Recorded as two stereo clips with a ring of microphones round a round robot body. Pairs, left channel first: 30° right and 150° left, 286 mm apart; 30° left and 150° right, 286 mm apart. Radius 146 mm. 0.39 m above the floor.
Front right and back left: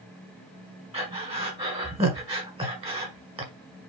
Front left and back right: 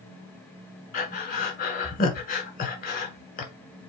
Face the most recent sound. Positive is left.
turn(degrees=85)